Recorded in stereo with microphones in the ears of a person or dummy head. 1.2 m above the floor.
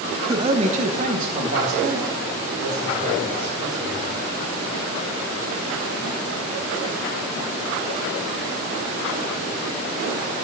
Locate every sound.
0.3 s a man speaking: 15° right (ahead or behind), 0.7 m; by 4.0 s 50° right (ahead or behind), 5.5 m